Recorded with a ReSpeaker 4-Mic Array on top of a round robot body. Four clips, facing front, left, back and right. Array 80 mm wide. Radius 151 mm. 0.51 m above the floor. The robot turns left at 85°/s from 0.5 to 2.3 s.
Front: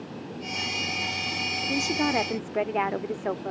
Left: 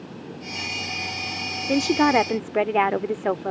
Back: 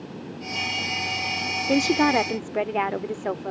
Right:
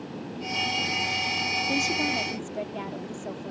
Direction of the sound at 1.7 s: 150° left.